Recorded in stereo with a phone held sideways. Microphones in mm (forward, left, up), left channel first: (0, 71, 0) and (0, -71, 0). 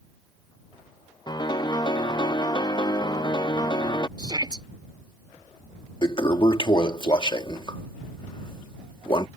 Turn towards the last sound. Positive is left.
turn(degrees=35)  # may be behind; listen again after turning